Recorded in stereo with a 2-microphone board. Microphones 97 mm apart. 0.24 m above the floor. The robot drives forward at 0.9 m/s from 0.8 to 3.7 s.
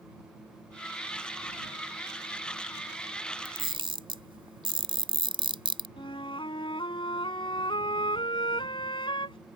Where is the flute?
60° left (ahead or behind).